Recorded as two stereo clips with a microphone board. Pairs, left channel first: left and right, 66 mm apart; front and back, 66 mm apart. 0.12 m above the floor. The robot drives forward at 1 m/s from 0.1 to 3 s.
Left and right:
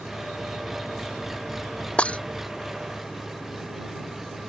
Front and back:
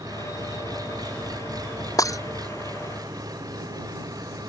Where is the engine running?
175° right.